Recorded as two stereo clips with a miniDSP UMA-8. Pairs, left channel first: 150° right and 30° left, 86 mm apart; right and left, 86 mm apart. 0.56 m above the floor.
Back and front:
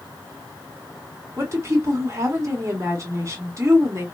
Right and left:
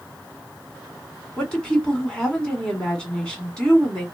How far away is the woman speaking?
About 1.7 m.